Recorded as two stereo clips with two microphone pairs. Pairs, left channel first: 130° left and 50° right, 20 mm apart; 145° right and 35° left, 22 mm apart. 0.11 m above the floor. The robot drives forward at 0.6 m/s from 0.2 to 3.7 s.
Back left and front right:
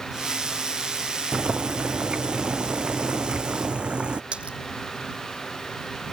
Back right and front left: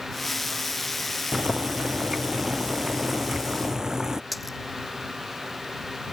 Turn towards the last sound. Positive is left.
turn(degrees=-50)